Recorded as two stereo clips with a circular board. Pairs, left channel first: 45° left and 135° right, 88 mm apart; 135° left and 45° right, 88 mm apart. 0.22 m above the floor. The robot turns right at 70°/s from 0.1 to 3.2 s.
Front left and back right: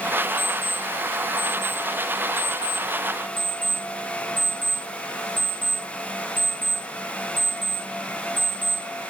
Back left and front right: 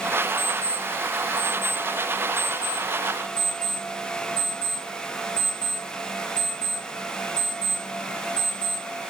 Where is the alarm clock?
160° right, 8 m; by 8.8 s 35° left, 8 m.